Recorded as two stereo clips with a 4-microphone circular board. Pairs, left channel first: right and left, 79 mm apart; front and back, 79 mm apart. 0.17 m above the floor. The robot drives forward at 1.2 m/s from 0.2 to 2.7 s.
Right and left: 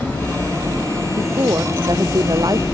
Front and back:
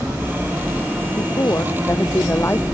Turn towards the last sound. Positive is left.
turn(degrees=60)